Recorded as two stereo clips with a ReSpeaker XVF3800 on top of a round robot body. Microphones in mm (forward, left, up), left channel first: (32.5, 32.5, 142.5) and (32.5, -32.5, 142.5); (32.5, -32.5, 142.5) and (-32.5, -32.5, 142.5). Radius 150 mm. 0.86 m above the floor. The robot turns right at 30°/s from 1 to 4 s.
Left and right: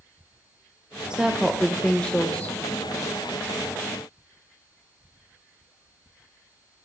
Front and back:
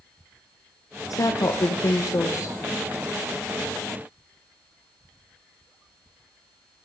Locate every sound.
1.1 s a woman speaking: 15° right, 0.8 m; by 2.6 s 30° left, 0.8 m